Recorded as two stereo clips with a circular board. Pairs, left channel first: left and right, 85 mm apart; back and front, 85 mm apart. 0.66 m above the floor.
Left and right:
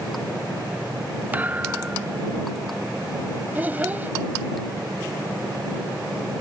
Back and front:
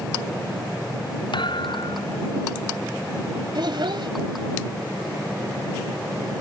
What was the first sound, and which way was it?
A thud, 160° right.